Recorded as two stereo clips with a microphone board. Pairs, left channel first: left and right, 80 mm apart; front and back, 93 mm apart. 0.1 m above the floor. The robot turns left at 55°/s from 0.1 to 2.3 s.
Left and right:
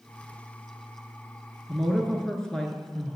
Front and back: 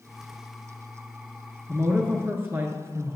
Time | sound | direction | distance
1.7 | a woman speaking | 170° right | 1.2 m